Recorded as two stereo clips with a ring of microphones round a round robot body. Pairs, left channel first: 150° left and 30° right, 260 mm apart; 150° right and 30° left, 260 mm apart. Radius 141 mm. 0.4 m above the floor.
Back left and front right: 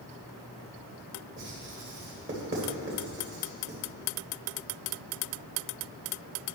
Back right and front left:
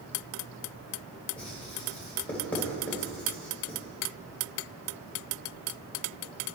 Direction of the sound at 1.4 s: 65° right.